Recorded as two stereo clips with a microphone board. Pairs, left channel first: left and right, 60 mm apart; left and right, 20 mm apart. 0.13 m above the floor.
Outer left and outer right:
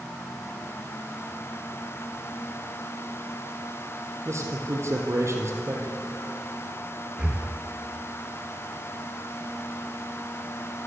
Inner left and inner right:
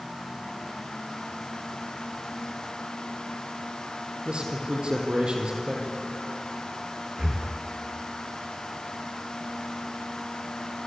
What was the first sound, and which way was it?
A man speaking, 55° right (ahead or behind).